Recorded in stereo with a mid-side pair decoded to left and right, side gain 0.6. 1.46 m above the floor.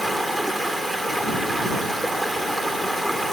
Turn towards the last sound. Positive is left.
turn(degrees=-5)